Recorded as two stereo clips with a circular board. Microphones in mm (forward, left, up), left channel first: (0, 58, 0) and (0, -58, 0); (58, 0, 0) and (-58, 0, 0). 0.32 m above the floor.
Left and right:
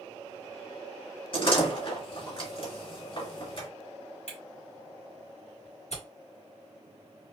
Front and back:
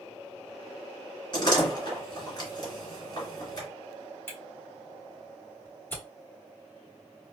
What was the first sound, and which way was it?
A door slam, 50° left.